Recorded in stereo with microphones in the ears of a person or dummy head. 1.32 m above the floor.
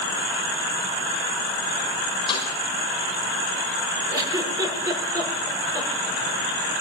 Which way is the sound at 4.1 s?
15° right (ahead or behind).